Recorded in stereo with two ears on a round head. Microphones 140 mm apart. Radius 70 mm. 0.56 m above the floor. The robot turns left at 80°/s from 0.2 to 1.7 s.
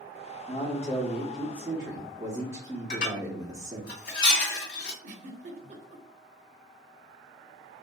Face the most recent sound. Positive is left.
turn(degrees=-50)  # may be behind; listen again after turning